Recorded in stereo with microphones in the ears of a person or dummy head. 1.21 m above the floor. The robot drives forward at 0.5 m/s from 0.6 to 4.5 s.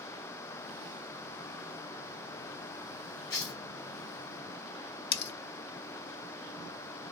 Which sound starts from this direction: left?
Cutlery clinking, at 5.1 s.